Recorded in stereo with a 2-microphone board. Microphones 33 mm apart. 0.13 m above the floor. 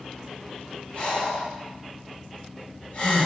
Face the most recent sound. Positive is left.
turn(degrees=40)  # may be behind; listen again after turning